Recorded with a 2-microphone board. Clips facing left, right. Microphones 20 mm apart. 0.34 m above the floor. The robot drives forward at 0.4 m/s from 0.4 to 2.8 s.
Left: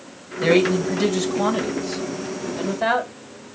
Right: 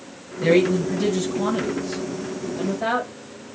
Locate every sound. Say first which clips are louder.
0.4 s a man speaking: left 1 dB; 30° left (ahead or behind), 1.4 m; by 3.5 s 20° left (ahead or behind), 1.9 m